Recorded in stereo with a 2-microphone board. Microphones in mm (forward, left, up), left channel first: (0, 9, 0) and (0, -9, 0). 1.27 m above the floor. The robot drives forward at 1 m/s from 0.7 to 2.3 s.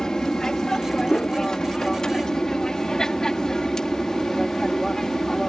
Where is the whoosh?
70° left (ahead or behind); by 1.4 s 65° left (ahead or behind).